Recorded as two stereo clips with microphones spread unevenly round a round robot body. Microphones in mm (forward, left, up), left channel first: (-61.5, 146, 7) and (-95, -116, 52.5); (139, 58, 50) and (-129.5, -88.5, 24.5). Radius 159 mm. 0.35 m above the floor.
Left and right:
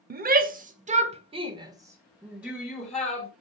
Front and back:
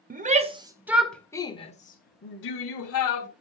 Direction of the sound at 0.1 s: 140° right.